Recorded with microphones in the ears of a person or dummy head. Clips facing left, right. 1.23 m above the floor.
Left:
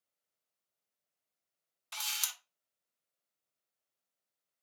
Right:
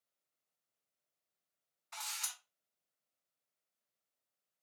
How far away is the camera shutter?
About 0.7 m.